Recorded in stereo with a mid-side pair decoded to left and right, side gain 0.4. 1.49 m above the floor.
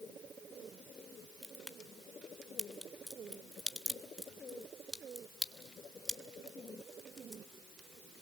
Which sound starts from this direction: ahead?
A crack, at 1.4 s.